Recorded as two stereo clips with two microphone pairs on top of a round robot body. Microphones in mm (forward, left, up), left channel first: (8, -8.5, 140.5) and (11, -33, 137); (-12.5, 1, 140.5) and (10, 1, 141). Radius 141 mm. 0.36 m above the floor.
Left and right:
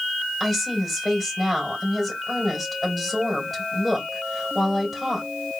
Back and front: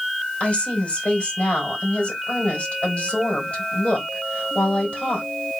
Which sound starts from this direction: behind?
A woman speaking, at 0.4 s.